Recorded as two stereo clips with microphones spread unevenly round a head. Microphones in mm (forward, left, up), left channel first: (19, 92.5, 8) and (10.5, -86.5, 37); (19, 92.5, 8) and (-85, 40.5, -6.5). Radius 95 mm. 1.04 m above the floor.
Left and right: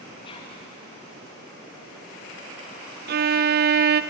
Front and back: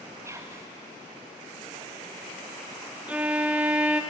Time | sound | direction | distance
0.2 | whispering | 145° left | 1.5 m
3.1 | a violin | 85° right | 0.7 m